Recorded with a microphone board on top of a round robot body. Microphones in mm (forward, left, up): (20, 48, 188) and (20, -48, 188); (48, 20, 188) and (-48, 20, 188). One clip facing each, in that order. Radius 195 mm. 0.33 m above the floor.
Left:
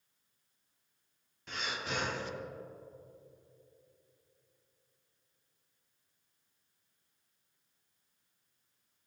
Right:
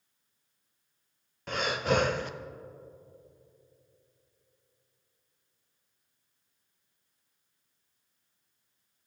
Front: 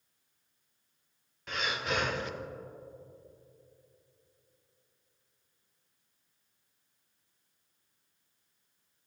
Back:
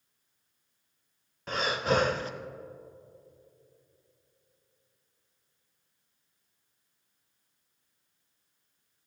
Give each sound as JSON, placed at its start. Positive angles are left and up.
{"t": 1.5, "sound": "breathing", "azimuth_deg": -125, "distance_m": 0.6}